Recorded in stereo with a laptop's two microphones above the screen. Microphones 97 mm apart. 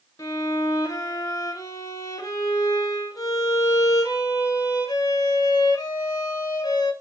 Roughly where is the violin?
Left.